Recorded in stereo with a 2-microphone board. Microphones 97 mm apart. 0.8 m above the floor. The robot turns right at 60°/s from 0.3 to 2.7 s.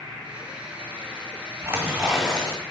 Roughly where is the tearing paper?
Ahead right.